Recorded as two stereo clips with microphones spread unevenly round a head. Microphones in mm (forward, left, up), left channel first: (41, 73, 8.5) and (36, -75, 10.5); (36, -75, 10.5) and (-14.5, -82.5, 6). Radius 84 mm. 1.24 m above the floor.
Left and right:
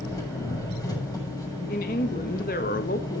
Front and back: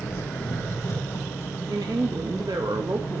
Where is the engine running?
25° left, 7 m.